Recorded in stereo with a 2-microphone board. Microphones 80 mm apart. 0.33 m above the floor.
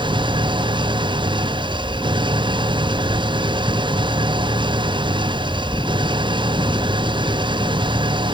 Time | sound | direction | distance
0.0 | an engine running | 85° right | ?